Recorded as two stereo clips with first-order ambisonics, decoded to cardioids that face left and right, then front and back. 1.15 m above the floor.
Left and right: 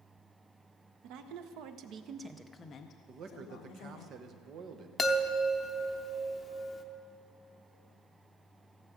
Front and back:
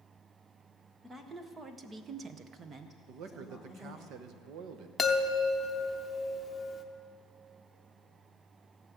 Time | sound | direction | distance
1.0 | a woman speaking | 100° right | 1.1 m
3.1 | a man speaking | 140° right | 0.9 m
5.0 | a chime | 45° left | 0.7 m